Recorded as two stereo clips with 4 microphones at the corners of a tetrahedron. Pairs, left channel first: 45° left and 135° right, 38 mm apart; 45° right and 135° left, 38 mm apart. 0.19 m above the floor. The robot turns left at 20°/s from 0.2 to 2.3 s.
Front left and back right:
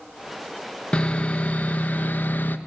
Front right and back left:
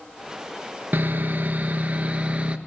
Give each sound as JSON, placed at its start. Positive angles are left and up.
{"t": 0.9, "sound": "sawing", "azimuth_deg": 110, "distance_m": 0.8}